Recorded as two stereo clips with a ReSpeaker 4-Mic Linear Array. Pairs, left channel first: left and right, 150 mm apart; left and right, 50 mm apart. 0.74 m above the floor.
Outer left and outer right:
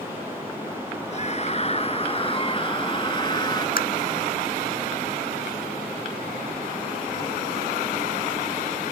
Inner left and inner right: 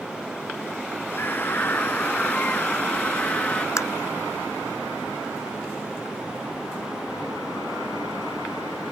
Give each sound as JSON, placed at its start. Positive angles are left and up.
{"t": 1.1, "sound": "a scream", "side_deg": 50}
{"t": 3.8, "sound": "tapping", "side_deg": 75}